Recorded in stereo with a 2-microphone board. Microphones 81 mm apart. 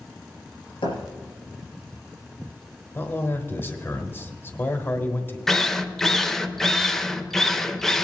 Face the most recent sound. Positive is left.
turn(degrees=5)  # may be behind; listen again after turning